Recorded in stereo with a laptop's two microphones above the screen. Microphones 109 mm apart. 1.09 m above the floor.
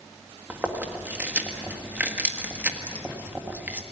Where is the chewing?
15° right (ahead or behind), 1.6 m.